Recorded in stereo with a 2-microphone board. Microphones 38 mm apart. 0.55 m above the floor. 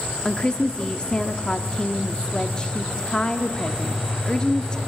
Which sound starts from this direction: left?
A woman speaking, at 0.2 s.